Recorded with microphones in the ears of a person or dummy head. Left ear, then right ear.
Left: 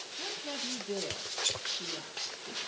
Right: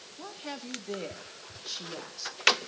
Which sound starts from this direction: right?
A woman speaking, at 0.2 s.